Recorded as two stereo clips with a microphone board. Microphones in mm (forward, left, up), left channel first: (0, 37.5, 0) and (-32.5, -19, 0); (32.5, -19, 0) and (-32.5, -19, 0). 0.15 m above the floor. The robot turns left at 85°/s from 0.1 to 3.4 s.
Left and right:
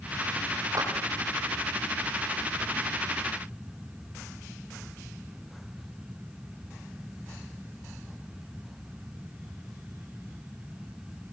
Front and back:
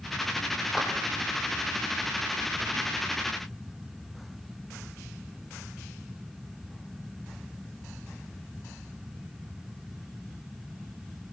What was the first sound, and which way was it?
A clap, 90° right.